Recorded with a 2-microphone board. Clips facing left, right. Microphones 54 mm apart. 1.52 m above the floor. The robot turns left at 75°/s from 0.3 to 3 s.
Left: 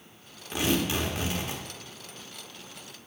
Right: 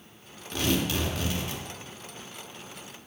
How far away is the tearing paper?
About 1.0 m.